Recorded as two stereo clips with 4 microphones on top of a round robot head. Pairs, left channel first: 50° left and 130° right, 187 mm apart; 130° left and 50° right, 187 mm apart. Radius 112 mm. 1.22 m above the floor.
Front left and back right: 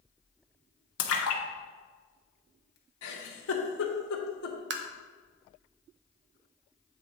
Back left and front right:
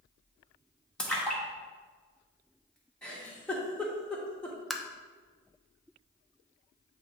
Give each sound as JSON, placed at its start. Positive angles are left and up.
{"t": 1.0, "sound": "a splash", "azimuth_deg": 45, "distance_m": 1.1}
{"t": 3.0, "sound": "a giggle", "azimuth_deg": 45, "distance_m": 1.1}
{"t": 4.7, "sound": "tapping", "azimuth_deg": -140, "distance_m": 0.7}